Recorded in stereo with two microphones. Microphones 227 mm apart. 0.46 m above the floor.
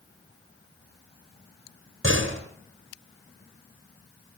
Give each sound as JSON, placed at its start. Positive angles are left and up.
{"t": 2.0, "sound": "a door slam", "side_deg": -65, "distance_m": 4.0}